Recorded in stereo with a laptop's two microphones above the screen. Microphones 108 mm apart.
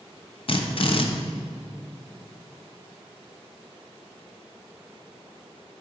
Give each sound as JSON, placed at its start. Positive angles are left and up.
{"t": 0.5, "sound": "a drill", "side_deg": 55, "distance_m": 0.6}